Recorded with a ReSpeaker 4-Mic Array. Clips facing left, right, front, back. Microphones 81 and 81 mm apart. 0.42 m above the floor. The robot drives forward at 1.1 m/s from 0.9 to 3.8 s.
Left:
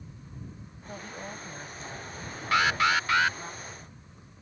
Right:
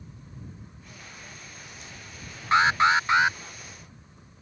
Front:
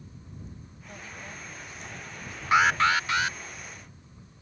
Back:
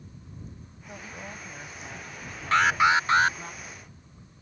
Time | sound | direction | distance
0.9 | a woman speaking | 105° left | ?
2.5 | an alarm | 60° right | ?